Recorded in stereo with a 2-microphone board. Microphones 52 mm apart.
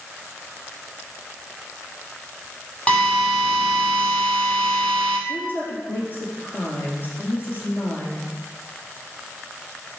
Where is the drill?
20° left (ahead or behind), 2 m.